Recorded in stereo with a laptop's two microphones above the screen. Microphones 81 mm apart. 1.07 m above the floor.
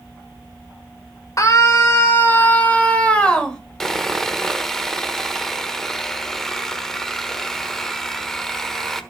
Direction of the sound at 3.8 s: 5° left (ahead or behind).